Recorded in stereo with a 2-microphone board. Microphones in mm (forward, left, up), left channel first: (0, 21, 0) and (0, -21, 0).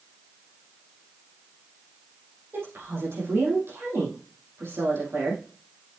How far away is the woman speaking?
About 5 m.